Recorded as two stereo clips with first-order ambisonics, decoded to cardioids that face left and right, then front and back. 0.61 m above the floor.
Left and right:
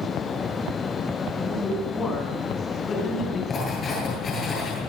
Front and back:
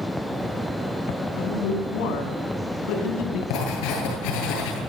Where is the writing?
20° left, 10 m.